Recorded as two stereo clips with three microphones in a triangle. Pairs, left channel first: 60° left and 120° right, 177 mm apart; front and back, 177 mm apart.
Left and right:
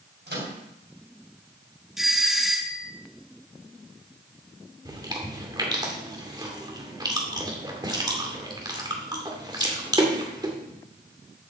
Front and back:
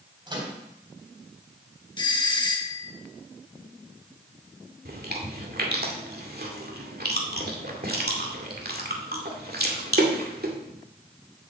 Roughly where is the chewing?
Behind.